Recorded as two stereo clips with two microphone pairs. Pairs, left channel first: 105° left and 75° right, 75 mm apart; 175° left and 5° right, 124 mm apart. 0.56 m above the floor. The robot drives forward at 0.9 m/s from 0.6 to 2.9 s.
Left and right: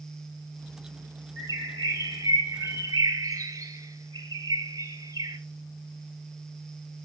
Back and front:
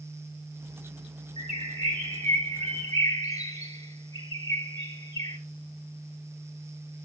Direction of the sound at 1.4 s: 25° right.